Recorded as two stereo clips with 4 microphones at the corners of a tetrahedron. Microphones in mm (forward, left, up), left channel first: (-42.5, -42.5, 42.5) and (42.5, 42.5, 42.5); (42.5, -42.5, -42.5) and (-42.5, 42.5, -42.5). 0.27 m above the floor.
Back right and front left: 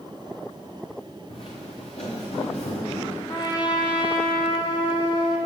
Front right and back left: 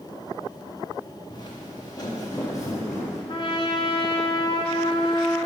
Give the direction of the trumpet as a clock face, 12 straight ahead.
3 o'clock.